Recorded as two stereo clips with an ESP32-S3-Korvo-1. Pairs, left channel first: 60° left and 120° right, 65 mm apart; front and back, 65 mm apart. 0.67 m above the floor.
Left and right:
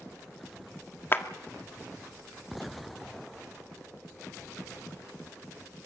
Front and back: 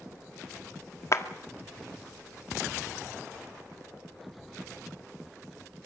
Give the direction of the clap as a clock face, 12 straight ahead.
11 o'clock.